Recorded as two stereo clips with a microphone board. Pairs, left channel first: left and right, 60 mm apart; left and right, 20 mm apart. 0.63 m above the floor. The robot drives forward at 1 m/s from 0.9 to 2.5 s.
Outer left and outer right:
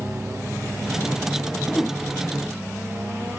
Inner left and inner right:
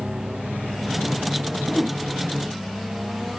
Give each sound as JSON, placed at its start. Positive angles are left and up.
{"t": 1.7, "sound": "a whoosh", "side_deg": 5, "distance_m": 0.7}